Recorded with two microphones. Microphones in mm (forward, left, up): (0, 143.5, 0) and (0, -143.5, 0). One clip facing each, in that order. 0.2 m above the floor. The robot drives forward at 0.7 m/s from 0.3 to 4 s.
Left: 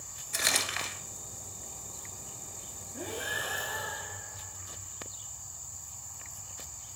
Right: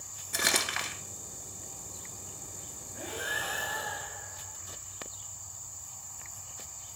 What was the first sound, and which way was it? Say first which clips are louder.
Crumpling: right 3 dB; 65° right (ahead or behind).